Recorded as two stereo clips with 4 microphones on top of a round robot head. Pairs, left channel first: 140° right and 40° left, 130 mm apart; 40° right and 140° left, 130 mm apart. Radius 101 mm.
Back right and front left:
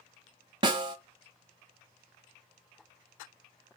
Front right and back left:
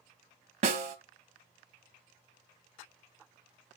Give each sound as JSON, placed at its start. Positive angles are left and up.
{"t": 0.6, "sound": "a snare drum", "azimuth_deg": 100, "distance_m": 0.6}